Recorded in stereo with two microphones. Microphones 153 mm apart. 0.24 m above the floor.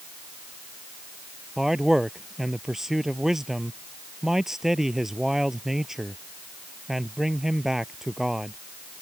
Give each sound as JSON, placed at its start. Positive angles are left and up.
{"t": 1.6, "sound": "a man speaking", "side_deg": -5}